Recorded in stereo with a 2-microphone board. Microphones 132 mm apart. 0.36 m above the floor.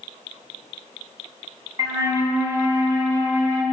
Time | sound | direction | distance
1.8 | a flute | 25° right (ahead or behind) | 3 m